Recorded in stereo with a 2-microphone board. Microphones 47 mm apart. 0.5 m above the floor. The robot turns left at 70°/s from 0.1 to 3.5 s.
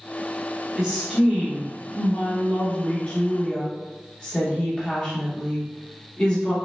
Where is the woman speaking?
25° right (ahead or behind), 0.8 m; by 6.5 s 25° left (ahead or behind), 0.8 m.